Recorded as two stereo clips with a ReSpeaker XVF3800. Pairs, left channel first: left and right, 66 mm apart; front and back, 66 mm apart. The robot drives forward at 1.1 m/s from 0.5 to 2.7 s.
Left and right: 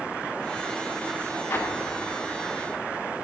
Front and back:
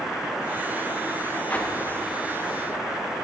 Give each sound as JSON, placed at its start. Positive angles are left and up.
{"t": 1.5, "sound": "an explosion", "azimuth_deg": 55, "distance_m": 1.9}